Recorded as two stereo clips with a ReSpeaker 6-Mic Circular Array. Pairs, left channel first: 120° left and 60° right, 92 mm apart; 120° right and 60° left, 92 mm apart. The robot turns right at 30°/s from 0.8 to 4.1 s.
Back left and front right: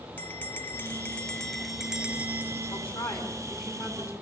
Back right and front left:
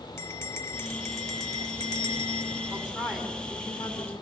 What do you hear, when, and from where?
0.2 s a bell: 175° right, 0.6 m; by 2.9 s 115° right, 0.6 m
2.7 s a woman speaking: 130° left, 5.5 m; by 4.1 s 175° left, 5.5 m